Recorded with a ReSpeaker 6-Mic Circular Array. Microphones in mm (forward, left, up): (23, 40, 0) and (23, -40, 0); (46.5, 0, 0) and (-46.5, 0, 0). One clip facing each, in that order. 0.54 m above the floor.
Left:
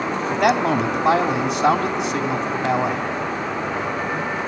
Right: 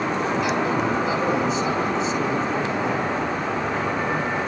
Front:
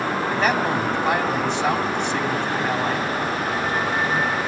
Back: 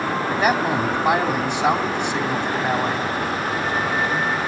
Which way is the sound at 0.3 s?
100° left.